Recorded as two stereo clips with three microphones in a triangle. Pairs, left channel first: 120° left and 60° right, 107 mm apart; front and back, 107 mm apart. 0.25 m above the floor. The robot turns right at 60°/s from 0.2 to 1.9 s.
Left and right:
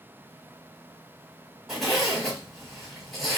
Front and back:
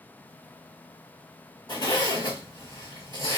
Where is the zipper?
20° left, 1.7 m; by 3.4 s 35° left, 1.7 m.